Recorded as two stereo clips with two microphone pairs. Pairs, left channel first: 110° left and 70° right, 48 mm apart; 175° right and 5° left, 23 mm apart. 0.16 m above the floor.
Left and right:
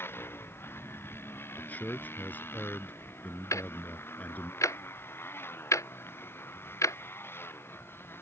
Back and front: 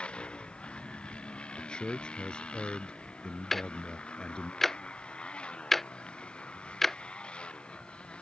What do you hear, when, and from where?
0.0 s a motorcycle: 150° left
1.6 s a man speaking: 155° left
3.5 s ticking: 105° left